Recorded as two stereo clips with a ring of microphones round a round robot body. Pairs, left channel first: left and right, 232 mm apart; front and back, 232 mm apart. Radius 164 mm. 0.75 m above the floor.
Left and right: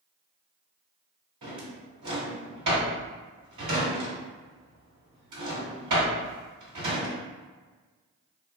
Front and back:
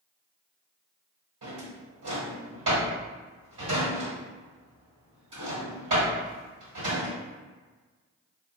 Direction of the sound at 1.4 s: 135° right.